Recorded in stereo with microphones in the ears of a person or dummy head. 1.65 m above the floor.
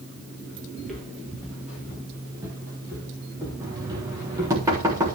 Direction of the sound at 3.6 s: 25° right (ahead or behind).